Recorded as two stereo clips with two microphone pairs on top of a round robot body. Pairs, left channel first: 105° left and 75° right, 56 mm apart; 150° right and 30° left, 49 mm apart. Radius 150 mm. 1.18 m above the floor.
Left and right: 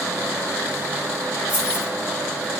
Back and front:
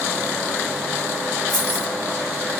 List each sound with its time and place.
1.5 s keys jangling: 130° left, 4.5 m